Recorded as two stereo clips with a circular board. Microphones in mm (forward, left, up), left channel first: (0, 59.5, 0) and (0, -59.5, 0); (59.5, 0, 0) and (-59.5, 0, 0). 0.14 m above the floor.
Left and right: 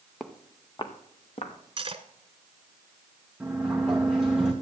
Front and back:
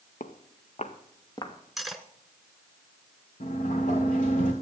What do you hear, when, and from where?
0.2 s footsteps: straight ahead, 1.5 m; by 1.5 s 60° left, 2.5 m
1.8 s cutlery clinking: 90° right, 1.0 m
3.4 s a sliding door: 5° right, 2 m